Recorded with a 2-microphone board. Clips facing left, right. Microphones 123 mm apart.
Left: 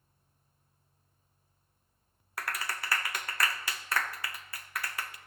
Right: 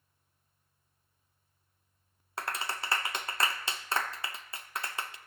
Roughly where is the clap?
Right.